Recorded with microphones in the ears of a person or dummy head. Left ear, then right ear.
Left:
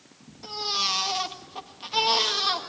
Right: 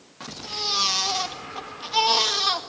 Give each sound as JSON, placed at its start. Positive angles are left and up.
{"t": 0.4, "sound": "a baby crying", "side_deg": -5, "distance_m": 2.0}